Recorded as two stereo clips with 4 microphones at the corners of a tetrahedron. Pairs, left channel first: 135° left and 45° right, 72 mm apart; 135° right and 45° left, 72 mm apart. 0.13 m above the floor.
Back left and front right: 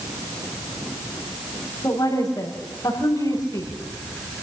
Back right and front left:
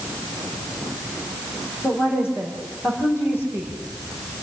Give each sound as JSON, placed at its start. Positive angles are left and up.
{"t": 1.8, "sound": "a woman speaking", "azimuth_deg": 165, "distance_m": 8.0}